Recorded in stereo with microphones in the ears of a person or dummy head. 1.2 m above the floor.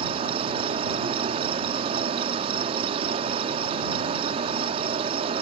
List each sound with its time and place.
0.0 s an insect: 30° right (ahead or behind)